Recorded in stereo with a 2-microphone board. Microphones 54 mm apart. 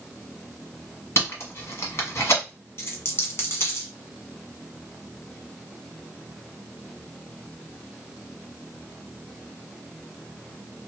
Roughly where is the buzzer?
I don't hear a buzzer.